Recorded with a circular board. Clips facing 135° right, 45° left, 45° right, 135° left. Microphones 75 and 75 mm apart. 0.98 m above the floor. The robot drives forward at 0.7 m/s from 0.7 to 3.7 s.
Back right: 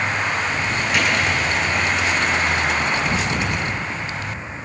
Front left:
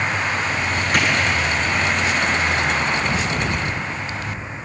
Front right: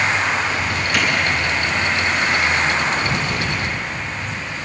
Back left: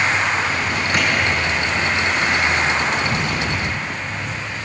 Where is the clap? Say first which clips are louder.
Front left 1 dB, even; 85° left, 9.5 m.